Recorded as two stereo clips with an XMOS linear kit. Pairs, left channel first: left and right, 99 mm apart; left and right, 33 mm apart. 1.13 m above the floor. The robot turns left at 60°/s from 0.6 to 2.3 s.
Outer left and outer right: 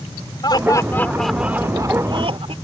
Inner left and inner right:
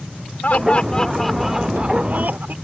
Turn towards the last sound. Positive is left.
turn(degrees=-60)